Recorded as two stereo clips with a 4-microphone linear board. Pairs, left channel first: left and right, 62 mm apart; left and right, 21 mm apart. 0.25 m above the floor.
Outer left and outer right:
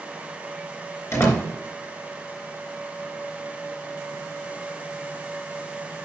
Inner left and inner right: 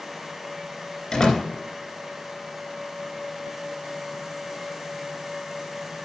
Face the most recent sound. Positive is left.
turn(degrees=45)  # may be behind; listen again after turning